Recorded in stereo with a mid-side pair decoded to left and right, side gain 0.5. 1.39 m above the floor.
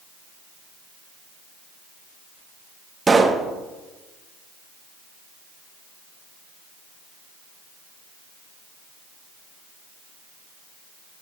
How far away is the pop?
About 1.2 m.